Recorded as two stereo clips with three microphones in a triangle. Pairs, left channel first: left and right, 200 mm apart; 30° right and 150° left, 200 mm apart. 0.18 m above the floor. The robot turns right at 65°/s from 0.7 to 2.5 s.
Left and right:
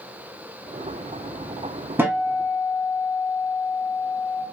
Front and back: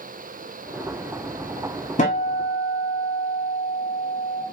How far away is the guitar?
About 0.9 m.